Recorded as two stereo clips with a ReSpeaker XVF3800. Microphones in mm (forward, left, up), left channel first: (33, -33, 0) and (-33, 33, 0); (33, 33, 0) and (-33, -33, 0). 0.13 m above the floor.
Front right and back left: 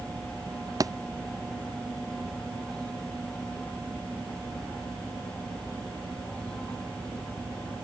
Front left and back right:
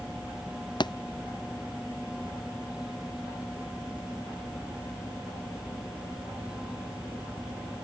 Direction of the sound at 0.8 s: 85° left.